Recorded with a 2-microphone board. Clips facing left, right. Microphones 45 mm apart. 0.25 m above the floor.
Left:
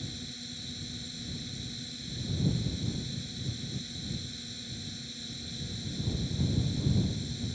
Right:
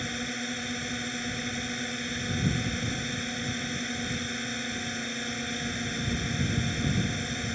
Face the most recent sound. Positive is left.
turn(degrees=-60)  # may be behind; listen again after turning